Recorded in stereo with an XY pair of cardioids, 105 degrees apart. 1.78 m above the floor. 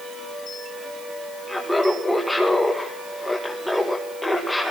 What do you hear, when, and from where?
1.5 s laughter: 5° left, 2 m